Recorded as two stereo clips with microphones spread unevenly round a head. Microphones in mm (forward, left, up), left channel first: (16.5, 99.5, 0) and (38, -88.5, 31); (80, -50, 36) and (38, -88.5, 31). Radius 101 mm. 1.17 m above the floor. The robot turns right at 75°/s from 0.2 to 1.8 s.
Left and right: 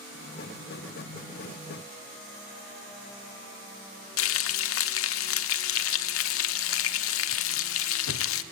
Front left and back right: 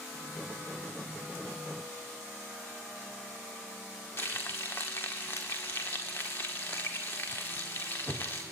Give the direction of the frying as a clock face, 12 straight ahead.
8 o'clock.